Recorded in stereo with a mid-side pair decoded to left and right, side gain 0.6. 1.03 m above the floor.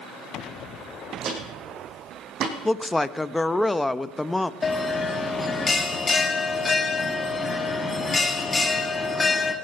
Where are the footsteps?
50° right, 3.5 m.